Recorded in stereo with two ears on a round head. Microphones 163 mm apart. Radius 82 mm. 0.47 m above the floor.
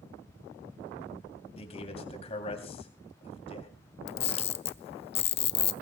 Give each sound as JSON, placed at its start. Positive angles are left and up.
{"t": 1.6, "sound": "a man speaking", "side_deg": 35, "distance_m": 3.0}
{"t": 4.1, "sound": "a camera shutter", "side_deg": 35, "distance_m": 0.8}